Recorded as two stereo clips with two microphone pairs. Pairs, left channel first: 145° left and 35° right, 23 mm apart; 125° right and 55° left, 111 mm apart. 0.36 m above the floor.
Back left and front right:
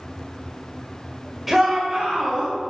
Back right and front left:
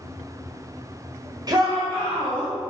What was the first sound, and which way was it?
A shout, 40° left.